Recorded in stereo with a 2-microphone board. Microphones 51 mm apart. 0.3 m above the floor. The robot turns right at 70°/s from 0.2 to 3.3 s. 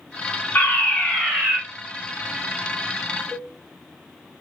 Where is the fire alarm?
120° left, 3 m; by 1.6 s 170° right, 3 m.